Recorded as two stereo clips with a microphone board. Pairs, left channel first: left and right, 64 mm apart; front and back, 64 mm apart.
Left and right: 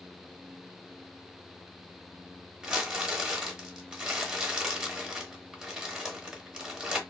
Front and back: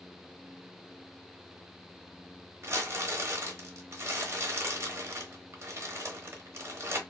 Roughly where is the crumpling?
Behind.